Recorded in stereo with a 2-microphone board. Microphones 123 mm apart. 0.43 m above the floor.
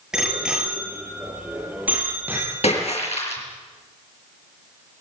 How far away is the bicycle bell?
About 6.5 m.